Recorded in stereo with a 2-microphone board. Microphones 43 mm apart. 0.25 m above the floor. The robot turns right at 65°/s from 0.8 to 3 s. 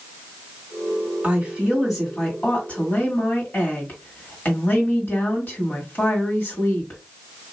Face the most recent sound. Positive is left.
turn(degrees=65)